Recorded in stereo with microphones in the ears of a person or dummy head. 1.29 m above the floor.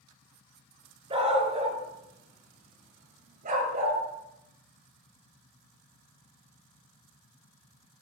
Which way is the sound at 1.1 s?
25° right (ahead or behind).